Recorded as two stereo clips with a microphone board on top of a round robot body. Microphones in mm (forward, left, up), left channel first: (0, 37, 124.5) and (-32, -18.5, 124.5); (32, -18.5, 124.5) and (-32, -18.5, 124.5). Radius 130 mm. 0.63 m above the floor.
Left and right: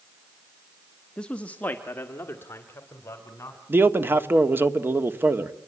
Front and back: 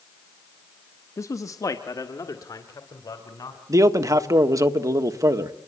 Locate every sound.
1.2 s a man speaking: 15° right, 1.2 m; by 3.6 s 15° left, 3 m
3.7 s a man speaking: 170° right, 1.6 m